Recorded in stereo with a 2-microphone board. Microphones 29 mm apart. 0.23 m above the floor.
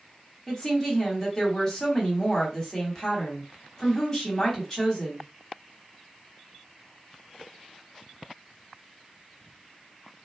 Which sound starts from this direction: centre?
A woman speaking, at 0.5 s.